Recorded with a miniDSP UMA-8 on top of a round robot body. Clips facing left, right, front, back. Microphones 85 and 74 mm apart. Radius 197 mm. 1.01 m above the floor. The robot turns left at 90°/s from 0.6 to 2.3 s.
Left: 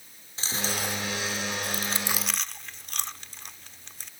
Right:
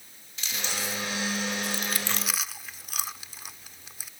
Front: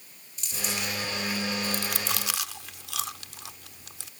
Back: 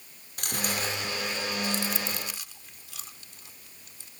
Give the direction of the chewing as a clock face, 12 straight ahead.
7 o'clock.